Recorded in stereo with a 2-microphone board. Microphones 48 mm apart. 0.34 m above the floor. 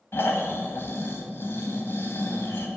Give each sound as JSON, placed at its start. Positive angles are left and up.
{"t": 0.1, "sound": "snoring", "side_deg": 55, "distance_m": 1.2}